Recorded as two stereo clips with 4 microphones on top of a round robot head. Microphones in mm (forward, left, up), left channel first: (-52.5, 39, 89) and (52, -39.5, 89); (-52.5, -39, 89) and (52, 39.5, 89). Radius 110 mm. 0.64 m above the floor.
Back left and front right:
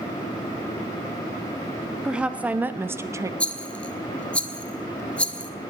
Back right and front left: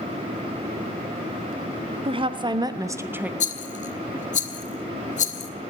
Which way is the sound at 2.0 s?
45° left.